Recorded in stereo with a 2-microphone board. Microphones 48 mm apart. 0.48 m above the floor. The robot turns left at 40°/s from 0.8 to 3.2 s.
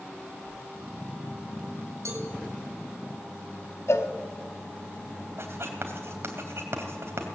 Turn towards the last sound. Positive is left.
turn(degrees=-55)  # may be behind; listen again after turning